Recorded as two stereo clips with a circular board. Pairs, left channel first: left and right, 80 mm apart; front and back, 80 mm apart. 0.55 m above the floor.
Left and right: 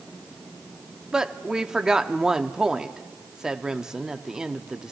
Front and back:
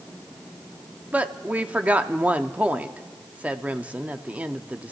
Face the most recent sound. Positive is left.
turn(degrees=-155)